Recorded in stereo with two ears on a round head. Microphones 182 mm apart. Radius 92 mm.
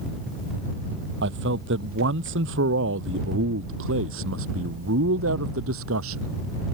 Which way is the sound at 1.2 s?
65° right (ahead or behind).